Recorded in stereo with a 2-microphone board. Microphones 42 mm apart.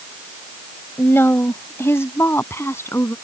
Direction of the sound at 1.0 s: 55° left (ahead or behind).